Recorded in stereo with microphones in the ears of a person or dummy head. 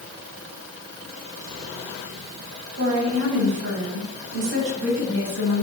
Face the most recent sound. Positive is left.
turn(degrees=-75)  # may be behind; listen again after turning